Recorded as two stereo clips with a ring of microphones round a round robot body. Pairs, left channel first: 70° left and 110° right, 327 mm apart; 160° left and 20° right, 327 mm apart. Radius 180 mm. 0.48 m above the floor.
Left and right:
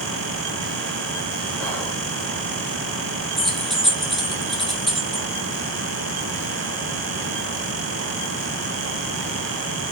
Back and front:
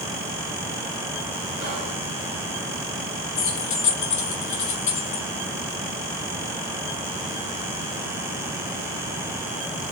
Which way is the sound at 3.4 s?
155° left.